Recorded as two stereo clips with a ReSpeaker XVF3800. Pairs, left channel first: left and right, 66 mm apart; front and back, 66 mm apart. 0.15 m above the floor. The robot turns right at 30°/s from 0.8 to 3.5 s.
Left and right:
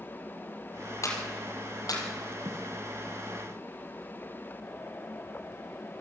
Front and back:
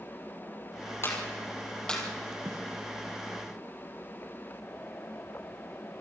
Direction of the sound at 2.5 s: 130° right.